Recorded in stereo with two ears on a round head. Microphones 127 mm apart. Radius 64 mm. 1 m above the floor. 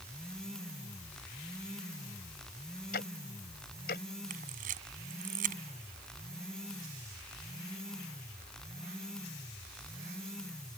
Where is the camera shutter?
65° right (ahead or behind).